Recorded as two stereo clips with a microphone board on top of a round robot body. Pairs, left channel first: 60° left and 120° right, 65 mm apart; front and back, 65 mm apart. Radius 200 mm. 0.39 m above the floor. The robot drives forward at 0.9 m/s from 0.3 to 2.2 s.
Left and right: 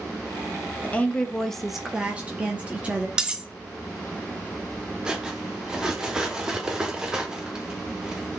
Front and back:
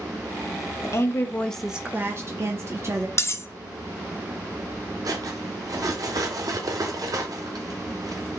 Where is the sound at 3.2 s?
45° right, 0.7 m.